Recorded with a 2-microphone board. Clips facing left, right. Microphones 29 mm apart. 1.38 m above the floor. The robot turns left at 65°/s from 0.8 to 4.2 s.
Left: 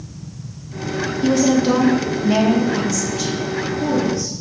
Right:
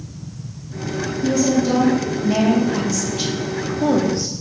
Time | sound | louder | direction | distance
1.2 | a woman speaking | left 2 dB | 95° left | 1.4 m